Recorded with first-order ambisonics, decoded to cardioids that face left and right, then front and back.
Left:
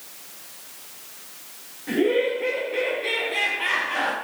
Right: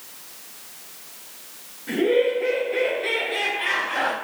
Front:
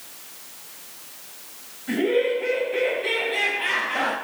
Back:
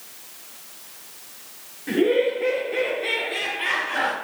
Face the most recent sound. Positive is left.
turn(degrees=-175)